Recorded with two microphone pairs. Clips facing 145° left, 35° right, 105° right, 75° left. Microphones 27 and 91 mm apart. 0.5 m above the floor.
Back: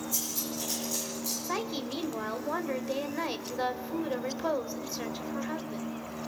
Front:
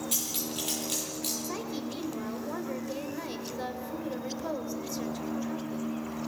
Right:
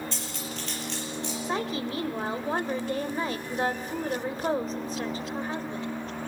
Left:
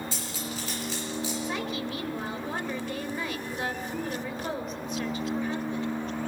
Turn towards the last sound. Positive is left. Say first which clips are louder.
# back 2 dB, right 2 dB
turn(degrees=-155)